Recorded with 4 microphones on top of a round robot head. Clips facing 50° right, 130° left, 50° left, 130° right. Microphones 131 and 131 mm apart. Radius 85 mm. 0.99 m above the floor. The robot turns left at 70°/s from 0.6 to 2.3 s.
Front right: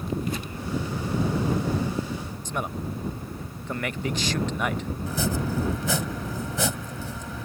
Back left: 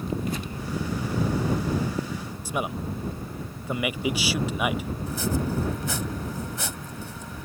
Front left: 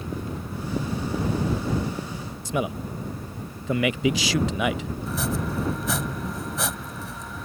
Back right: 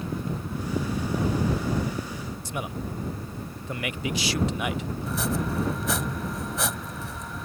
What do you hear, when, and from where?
2.5 s a man speaking: 45° left
5.1 s chopping: 35° right